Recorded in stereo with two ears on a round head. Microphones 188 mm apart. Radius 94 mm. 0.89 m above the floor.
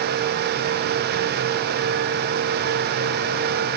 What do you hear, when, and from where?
Only background noise.